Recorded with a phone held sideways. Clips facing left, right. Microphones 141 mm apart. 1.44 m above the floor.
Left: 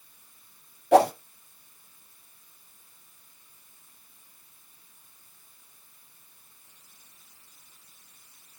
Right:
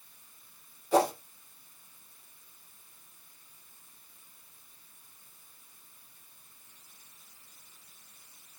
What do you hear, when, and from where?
0.9 s a whoosh: 75° left (ahead or behind), 0.7 m